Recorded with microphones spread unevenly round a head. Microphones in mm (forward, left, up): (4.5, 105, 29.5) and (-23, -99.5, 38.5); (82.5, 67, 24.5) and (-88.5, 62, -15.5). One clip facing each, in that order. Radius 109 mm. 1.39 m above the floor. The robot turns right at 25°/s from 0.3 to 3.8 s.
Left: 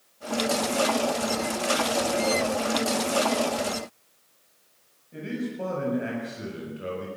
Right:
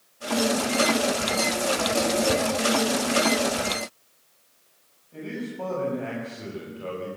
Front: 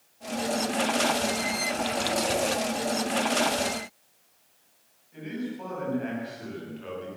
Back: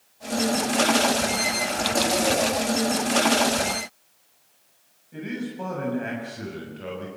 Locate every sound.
2.3 s a whoosh: 85° right, 5 m
5.1 s a man speaking: 155° left, 7.5 m